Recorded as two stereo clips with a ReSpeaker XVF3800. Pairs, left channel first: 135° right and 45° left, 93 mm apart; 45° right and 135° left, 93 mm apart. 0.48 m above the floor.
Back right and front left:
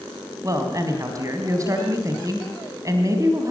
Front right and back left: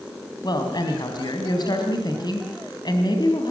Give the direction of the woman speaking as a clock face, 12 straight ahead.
12 o'clock.